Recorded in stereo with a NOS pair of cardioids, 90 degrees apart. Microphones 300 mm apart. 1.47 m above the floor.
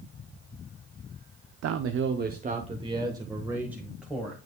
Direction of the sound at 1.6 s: 60° right.